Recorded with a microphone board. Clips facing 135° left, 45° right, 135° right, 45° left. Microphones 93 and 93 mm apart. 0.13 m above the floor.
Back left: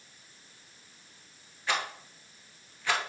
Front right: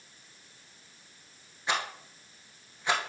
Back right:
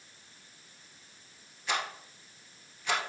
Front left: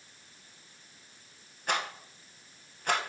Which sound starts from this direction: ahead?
A rattle, at 1.7 s.